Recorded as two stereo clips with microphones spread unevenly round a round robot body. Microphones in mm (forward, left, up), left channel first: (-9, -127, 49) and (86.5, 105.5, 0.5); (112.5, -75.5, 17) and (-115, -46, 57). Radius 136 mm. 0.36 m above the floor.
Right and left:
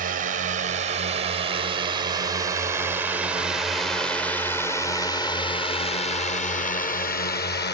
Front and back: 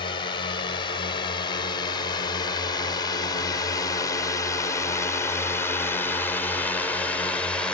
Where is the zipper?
No zipper in this recording.